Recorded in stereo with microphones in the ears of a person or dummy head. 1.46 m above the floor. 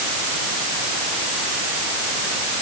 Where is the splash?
No splash in this recording.